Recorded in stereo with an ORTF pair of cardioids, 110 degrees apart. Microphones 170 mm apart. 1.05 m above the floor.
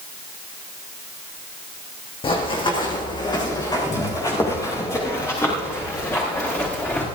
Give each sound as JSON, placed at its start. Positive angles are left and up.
{"t": 2.2, "sound": "running footsteps", "azimuth_deg": 35, "distance_m": 4.0}